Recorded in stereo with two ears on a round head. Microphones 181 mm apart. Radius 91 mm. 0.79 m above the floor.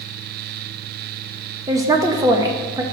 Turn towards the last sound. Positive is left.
turn(degrees=-15)  # may be behind; listen again after turning